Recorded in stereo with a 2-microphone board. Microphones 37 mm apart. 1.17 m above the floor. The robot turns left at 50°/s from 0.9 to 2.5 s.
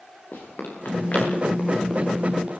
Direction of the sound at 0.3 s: 65° left (ahead or behind).